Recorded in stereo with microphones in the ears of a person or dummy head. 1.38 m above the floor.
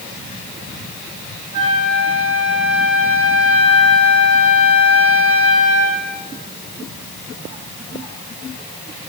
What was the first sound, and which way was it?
A flute, 70° right (ahead or behind).